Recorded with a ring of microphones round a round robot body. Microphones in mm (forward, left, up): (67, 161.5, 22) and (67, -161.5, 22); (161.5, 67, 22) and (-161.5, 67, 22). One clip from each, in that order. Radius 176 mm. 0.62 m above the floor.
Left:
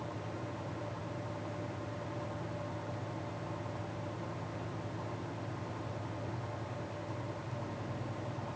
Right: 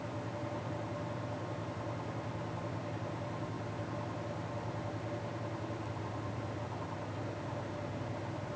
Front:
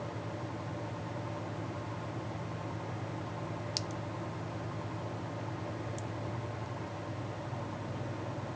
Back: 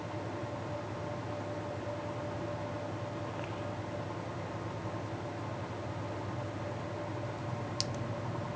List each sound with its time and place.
Only background noise.